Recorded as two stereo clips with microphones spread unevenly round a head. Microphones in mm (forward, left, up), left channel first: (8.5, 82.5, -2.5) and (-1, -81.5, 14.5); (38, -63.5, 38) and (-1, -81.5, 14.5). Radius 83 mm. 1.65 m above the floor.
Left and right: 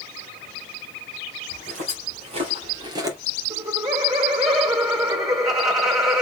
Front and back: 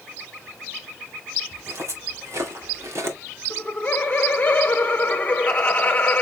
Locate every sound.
1.5 s footsteps: 135° right, 4 m; by 3.2 s 145° right, 1.9 m
3.5 s laughter: 25° right, 1.1 m